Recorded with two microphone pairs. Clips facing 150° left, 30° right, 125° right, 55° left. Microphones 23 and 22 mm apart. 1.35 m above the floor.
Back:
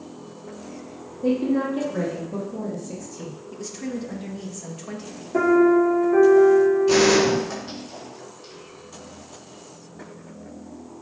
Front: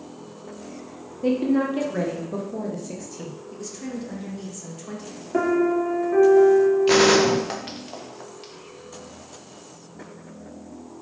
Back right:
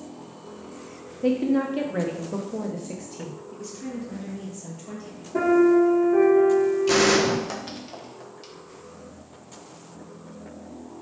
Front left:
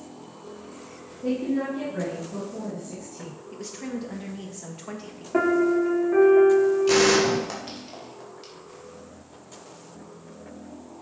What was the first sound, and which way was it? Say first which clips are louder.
A woman speaking: front 1 dB, back right 4 dB; 90° right.